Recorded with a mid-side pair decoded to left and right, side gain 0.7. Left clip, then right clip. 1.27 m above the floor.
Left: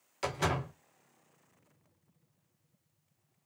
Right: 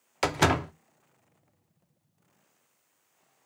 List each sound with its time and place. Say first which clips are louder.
0.2 s a door slam: right 8 dB; 50° right, 0.7 m